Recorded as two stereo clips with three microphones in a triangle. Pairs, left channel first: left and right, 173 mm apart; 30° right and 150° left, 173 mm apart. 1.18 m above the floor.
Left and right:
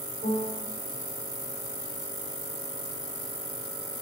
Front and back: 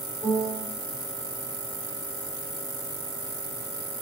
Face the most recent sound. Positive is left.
turn(degrees=70)